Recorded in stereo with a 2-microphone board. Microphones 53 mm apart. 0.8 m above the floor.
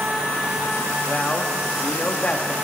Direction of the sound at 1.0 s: 25° left (ahead or behind).